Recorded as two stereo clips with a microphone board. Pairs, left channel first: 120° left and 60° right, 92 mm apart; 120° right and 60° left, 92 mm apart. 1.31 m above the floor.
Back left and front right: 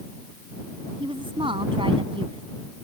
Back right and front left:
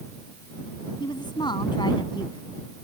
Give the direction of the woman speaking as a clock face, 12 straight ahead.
3 o'clock.